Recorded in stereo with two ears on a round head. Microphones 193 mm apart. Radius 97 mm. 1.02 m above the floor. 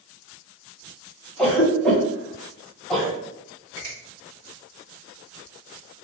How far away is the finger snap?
About 2.0 m.